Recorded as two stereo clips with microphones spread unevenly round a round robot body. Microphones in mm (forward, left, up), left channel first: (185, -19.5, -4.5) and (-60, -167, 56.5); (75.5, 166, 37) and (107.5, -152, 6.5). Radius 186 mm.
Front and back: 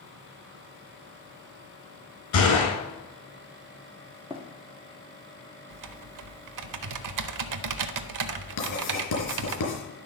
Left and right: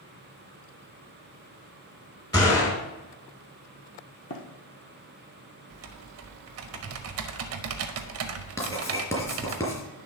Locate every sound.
2.3 s a gunshot: 15° left, 4.5 m
4.3 s running footsteps: 135° left, 1.4 m
5.7 s typing on a keyboard: 130° right, 0.7 m
8.6 s writing: 15° left, 4 m